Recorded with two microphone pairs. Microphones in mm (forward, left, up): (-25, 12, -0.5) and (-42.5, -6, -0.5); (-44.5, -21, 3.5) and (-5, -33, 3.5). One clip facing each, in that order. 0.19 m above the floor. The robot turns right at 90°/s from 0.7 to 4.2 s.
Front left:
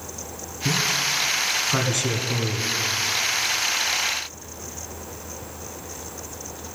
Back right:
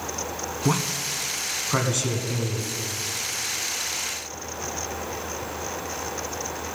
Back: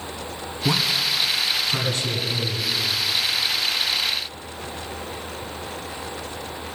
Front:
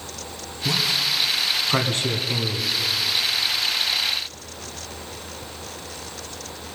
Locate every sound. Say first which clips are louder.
0.7 s a man speaking: front left 4 dB, back 1 dB; 145° right, 1.5 m; by 2.8 s 40° left, 1.5 m